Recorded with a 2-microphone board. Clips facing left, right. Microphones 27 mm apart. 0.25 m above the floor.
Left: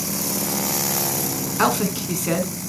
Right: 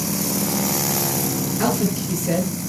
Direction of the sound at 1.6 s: 55° left (ahead or behind).